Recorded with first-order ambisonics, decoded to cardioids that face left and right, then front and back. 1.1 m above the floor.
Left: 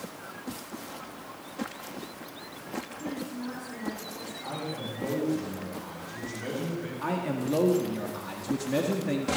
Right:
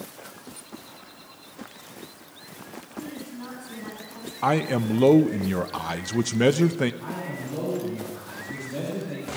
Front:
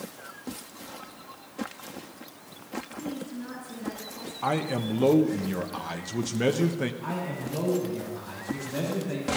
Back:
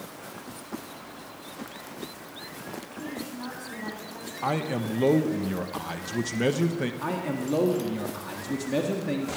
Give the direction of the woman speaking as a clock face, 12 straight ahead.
6 o'clock.